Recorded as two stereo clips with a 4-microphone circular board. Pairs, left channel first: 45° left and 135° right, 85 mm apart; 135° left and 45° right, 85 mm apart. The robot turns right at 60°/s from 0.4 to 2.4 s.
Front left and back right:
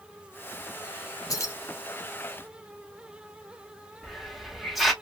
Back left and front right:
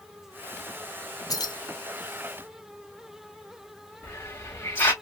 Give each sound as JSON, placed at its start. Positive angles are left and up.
{"t": 1.3, "sound": "keys jangling", "azimuth_deg": 90, "distance_m": 0.7}
{"t": 4.0, "sound": "a hiss", "azimuth_deg": 140, "distance_m": 0.8}